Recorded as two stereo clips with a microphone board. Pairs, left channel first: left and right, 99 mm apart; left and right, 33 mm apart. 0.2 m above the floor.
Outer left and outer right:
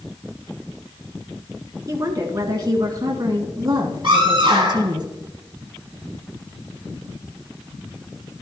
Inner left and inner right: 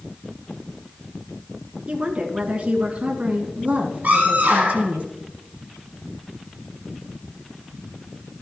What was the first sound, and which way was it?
A woman speaking, 35° right (ahead or behind).